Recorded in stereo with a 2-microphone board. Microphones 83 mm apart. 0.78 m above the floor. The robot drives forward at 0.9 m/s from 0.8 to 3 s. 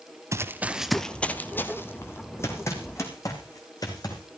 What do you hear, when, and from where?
0.3 s running footsteps: 35° right (ahead or behind), 1.1 m; by 4.2 s 50° left (ahead or behind), 4.5 m